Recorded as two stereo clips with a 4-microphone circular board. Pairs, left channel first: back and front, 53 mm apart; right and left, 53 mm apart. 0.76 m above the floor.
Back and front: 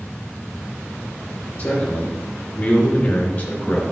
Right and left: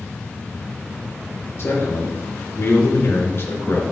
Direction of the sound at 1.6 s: 115° right.